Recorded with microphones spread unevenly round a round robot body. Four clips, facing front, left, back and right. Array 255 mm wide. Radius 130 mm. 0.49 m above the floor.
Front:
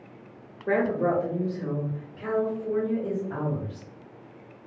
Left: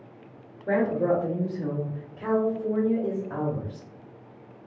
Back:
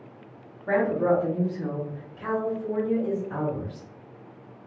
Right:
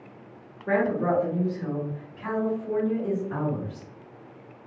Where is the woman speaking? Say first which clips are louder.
Even, back 2 dB; 15° left, 1.3 m; by 3.9 s 85° left, 2.5 m.